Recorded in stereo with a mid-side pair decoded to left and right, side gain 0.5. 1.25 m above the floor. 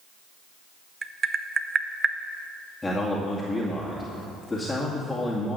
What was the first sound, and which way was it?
Tapping, 35° right.